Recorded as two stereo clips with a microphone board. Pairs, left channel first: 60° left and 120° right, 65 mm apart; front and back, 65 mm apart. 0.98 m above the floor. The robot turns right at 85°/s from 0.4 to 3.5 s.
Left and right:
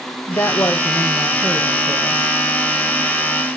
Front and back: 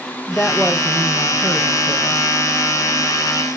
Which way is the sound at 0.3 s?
70° left.